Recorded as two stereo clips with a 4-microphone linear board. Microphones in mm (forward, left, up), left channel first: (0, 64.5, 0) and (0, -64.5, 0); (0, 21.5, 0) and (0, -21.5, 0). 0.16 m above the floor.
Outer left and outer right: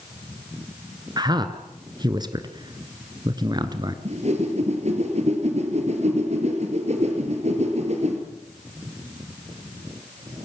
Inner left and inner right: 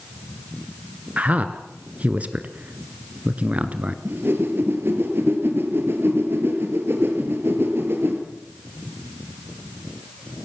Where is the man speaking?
35° right (ahead or behind), 1.9 m.